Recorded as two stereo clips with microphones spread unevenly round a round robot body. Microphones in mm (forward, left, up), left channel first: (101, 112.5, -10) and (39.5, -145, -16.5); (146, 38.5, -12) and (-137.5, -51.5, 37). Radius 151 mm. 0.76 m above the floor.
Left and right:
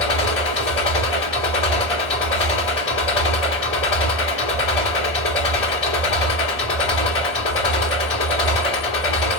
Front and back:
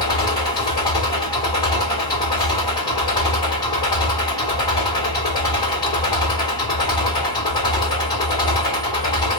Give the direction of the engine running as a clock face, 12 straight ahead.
9 o'clock.